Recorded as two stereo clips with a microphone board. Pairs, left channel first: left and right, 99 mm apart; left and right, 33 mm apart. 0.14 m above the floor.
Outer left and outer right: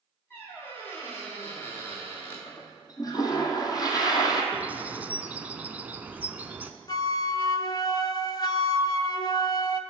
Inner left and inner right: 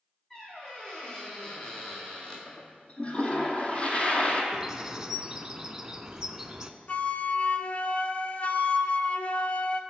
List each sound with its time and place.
0.3 s a squeak: 20° left (ahead or behind), 3.5 m
2.5 s a toilet flushing: 35° left (ahead or behind), 1.3 m
4.5 s a bird: 15° right (ahead or behind), 0.5 m
6.9 s a flute: 40° left (ahead or behind), 0.5 m